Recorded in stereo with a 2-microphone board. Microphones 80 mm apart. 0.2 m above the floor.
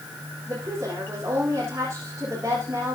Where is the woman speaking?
30° right (ahead or behind), 9.5 m.